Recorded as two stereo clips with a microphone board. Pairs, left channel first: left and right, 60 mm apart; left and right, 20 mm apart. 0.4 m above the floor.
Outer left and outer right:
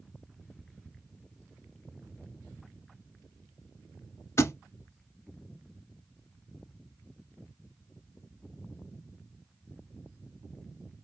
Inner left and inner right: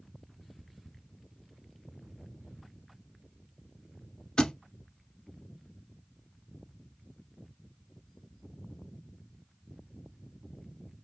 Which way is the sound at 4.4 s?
45° left (ahead or behind).